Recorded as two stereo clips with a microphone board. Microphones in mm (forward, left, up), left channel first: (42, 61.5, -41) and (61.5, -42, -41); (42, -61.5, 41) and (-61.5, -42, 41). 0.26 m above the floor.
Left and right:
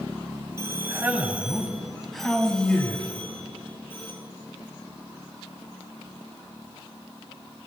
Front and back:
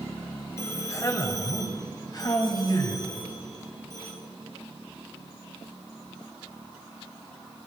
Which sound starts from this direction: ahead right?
A man speaking, at 0.6 s.